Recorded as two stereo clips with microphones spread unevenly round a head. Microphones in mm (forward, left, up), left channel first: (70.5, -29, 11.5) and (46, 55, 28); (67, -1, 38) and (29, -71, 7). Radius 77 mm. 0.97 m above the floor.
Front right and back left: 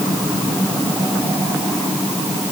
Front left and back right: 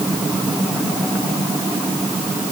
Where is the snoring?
No snoring in this recording.